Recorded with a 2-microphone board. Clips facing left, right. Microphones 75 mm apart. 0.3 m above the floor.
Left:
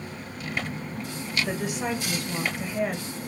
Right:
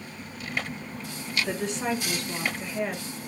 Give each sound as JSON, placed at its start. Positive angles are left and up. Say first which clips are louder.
{"t": 1.4, "sound": "a woman speaking", "louder": "right 2 dB", "side_deg": 10, "distance_m": 0.9}